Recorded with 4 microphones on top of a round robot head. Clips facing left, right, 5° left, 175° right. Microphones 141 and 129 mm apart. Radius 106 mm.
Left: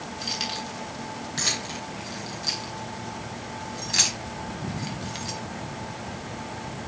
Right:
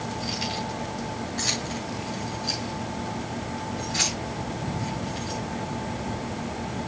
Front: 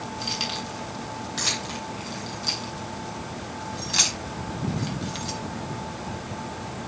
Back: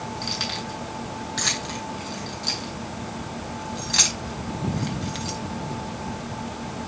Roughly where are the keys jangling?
Left.